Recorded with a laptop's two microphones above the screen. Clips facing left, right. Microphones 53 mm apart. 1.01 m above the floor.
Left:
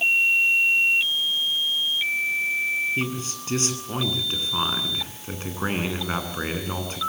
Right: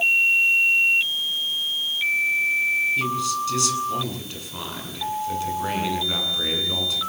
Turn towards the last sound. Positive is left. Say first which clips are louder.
# right 5 dB
turn(degrees=35)  # may be behind; listen again after turning